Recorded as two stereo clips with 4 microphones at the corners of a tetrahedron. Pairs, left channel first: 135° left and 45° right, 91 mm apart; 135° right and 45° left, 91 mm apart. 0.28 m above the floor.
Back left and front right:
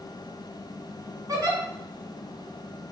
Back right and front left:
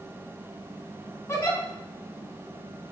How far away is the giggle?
About 2 m.